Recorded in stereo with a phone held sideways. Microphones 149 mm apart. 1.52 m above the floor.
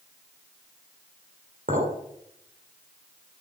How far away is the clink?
About 3 m.